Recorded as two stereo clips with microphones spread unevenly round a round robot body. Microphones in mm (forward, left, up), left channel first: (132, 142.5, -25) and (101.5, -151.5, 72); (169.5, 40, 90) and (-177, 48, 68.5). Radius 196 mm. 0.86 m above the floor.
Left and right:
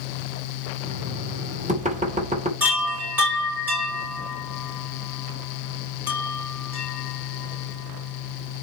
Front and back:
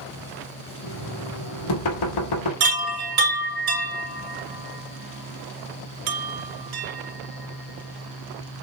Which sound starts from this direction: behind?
A chime, at 2.6 s.